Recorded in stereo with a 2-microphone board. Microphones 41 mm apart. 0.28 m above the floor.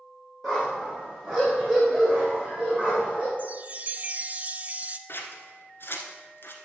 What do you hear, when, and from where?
0.4 s a dog barking: centre (ahead or behind), 4.5 m; by 3.3 s 30° right (ahead or behind), 6.5 m
3.4 s a chime: 35° right (ahead or behind), 0.5 m
5.1 s scissors: 60° left (ahead or behind), 1.5 m